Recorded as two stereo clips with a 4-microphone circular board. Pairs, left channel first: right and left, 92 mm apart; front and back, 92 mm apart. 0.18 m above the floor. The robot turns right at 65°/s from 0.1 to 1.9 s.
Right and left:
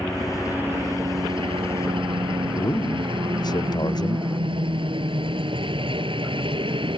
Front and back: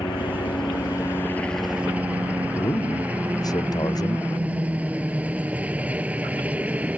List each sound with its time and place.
0.0 s a helicopter: 10° right; by 7.0 s 105° left
2.5 s a man speaking: 45° right